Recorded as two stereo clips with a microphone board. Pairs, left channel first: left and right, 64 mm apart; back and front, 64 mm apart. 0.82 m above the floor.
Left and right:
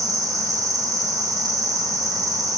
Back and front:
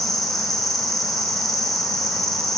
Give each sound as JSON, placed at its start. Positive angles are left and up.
{"t": 0.0, "sound": "an insect", "azimuth_deg": -95, "distance_m": 0.9}